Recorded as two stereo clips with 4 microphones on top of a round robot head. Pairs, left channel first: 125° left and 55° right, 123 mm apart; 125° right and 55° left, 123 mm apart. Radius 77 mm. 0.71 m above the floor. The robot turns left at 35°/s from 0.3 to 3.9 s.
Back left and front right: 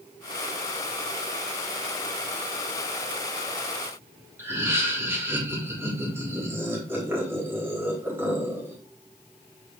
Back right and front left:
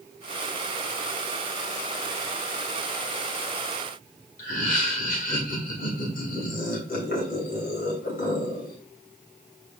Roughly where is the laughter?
Behind right.